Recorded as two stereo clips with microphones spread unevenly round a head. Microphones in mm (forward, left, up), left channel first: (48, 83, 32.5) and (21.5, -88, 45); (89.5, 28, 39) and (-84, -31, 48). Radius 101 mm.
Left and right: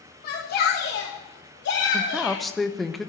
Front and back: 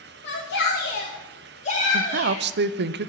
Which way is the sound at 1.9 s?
170° left.